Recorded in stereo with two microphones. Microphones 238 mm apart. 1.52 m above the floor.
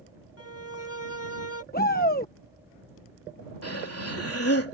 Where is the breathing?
80° left.